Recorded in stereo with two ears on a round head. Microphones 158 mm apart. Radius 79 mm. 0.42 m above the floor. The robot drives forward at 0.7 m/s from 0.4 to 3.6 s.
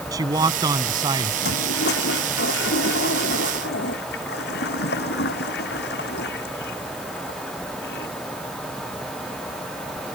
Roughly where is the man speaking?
Right.